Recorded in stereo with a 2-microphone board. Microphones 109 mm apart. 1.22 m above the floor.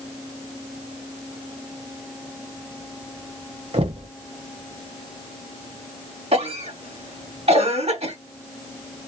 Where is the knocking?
65° right (ahead or behind), 0.9 m.